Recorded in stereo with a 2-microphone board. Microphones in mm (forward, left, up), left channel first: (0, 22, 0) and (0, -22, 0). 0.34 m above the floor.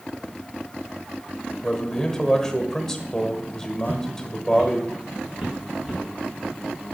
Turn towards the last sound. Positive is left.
turn(degrees=-10)  # may be behind; listen again after turning